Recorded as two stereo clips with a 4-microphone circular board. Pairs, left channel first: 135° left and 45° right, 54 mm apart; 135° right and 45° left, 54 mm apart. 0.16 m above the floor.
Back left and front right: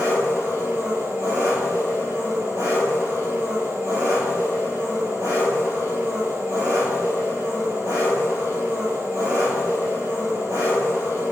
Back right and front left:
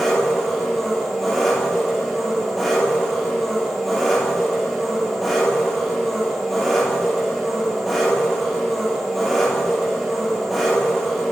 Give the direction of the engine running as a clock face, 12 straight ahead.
2 o'clock.